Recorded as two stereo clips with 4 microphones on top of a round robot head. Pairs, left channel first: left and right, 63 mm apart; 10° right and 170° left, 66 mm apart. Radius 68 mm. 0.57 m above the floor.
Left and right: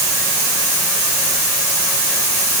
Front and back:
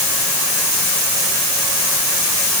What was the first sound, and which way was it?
Only background noise.